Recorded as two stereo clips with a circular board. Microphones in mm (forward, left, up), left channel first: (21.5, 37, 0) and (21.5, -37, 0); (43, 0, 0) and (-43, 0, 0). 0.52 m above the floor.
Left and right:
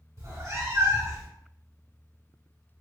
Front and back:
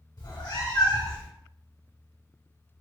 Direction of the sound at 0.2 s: 40° right.